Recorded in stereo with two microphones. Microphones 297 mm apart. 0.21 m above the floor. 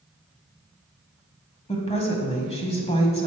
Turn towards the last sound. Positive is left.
turn(degrees=20)  # may be behind; listen again after turning